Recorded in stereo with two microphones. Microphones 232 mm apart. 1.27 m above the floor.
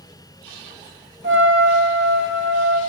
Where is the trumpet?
55° right (ahead or behind), 0.9 m.